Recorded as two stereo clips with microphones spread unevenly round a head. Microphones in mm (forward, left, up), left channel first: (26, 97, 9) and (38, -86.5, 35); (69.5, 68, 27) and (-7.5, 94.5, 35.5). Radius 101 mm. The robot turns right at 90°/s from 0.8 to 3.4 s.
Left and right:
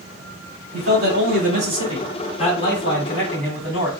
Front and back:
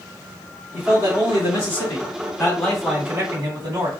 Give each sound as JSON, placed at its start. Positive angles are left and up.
{"t": 0.7, "sound": "a man speaking", "azimuth_deg": -105, "distance_m": 2.0}